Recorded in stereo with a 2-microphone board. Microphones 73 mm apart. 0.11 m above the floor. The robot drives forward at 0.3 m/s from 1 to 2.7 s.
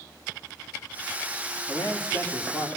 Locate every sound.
1.7 s a man speaking: 30° left (ahead or behind), 8 m